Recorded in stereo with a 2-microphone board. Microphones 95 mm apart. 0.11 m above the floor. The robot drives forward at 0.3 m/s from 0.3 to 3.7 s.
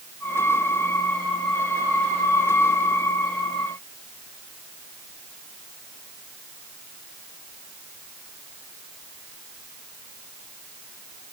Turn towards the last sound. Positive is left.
No sound to turn to.